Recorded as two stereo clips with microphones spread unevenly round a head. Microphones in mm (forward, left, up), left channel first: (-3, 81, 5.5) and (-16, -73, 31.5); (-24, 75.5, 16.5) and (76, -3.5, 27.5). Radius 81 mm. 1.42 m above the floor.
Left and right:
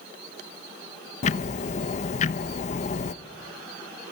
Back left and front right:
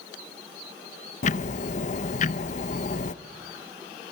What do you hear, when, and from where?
1.2 s ticking: 130° left, 0.7 m